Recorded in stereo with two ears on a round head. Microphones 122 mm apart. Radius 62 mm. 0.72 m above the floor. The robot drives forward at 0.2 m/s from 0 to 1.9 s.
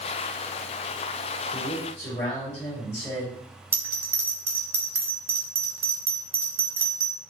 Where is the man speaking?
55° left (ahead or behind), 1.7 m.